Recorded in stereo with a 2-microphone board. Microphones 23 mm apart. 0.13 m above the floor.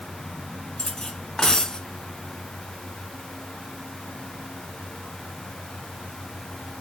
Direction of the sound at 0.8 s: 30° left (ahead or behind).